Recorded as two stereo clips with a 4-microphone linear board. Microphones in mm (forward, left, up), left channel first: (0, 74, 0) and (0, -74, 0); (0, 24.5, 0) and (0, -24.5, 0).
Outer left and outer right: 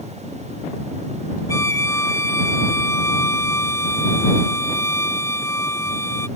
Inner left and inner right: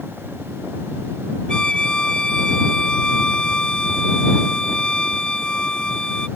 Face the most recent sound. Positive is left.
turn(degrees=20)  # may be behind; listen again after turning